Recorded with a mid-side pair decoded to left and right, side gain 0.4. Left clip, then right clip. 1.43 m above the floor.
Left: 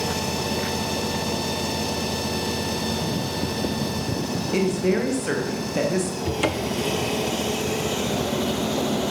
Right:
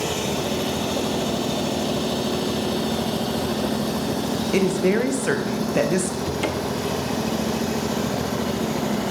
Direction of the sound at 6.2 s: 25° left.